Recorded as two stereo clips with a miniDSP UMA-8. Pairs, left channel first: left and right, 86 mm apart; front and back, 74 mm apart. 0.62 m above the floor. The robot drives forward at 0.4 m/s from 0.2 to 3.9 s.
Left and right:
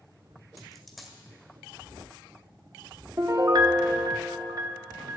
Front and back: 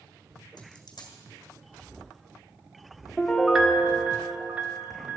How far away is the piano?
About 0.7 m.